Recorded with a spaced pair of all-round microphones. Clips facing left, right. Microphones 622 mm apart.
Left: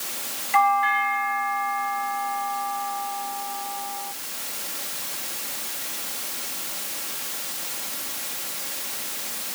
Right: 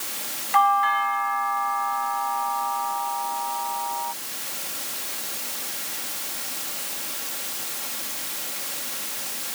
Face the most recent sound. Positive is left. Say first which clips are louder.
# even
turn(degrees=50)  # may be behind; listen again after turning